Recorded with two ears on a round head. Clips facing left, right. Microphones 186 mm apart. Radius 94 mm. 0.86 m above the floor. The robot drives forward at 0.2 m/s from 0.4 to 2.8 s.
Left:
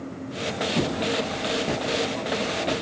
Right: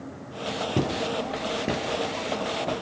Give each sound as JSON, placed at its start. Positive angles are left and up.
{"t": 0.8, "sound": "footsteps", "side_deg": -25, "distance_m": 1.2}